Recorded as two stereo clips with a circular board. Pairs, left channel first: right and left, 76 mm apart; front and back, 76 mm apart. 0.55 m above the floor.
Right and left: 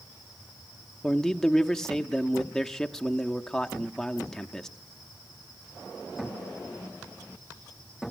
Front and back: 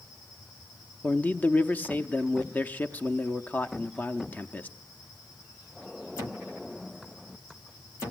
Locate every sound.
1.0 s a man speaking: 15° right, 0.6 m